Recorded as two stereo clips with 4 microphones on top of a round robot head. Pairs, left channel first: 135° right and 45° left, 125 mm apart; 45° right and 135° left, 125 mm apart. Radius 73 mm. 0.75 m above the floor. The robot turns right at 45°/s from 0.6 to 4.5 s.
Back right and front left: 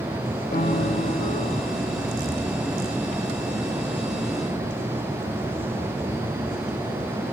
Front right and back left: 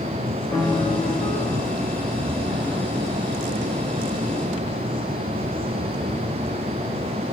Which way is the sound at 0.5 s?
115° right.